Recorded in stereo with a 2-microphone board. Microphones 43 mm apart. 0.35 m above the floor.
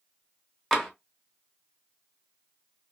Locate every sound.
0.7 s tapping: 10° left (ahead or behind), 0.6 m